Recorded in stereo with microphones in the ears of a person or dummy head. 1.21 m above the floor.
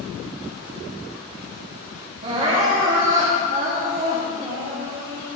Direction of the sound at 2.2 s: 35° right (ahead or behind).